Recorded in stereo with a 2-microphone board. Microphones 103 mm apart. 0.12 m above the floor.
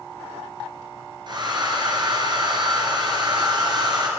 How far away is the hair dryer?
About 2.5 m.